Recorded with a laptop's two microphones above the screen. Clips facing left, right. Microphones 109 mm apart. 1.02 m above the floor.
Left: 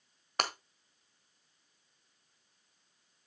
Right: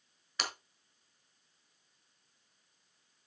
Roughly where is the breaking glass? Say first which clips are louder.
Left 6 dB; left.